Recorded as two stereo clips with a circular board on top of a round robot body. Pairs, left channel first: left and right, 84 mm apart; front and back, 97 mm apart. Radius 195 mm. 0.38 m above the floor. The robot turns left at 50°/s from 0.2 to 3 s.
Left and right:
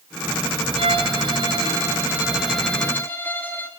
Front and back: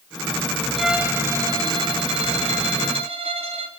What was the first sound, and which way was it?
A violin, 90° right.